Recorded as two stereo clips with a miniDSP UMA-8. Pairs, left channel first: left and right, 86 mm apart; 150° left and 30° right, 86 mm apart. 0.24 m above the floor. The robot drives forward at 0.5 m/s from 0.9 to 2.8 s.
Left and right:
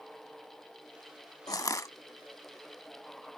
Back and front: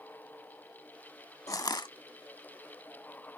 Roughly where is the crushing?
Behind left.